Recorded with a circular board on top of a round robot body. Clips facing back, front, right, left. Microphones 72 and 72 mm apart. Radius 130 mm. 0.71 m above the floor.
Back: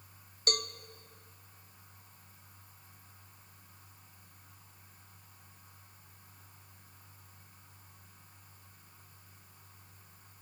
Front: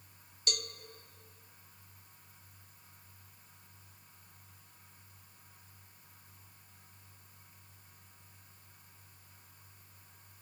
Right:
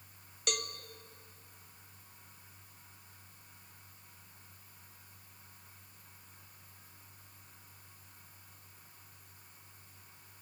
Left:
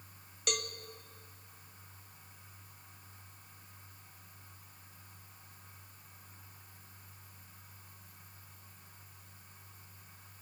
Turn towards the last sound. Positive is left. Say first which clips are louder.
# back 5 dB, left 1 dB
turn(degrees=180)